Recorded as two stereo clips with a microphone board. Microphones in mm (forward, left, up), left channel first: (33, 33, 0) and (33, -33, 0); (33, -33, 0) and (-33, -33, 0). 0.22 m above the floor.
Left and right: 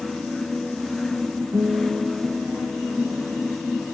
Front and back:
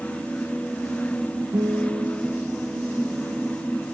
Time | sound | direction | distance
1.5 | a guitar | 130° right | 4 m